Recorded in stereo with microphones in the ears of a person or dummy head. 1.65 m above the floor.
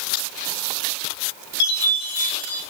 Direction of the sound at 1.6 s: 85° left.